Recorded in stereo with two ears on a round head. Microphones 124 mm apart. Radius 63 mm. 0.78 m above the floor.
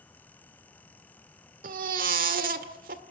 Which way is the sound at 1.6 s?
70° right (ahead or behind).